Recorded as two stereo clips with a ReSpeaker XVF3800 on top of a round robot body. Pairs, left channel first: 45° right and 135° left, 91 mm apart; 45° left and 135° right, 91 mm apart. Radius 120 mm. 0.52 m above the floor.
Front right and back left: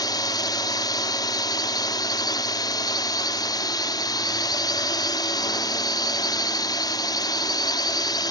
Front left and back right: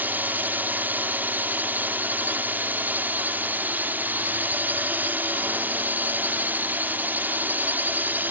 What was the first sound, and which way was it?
A drone, 70° right.